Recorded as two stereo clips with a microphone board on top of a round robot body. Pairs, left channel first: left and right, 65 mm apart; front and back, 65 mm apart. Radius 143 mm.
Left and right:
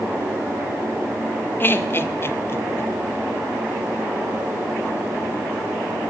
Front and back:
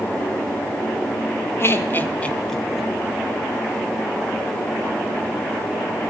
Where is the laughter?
40° left, 1.9 m; by 2.9 s 105° left, 1.3 m.